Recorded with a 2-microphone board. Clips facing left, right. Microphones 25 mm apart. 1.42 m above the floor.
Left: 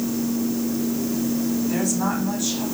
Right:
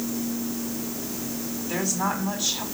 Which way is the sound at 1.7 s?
25° right (ahead or behind).